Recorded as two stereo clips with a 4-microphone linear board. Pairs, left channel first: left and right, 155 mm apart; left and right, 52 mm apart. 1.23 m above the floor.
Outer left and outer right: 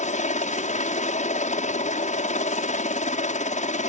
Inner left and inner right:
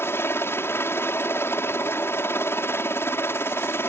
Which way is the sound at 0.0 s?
55° left (ahead or behind).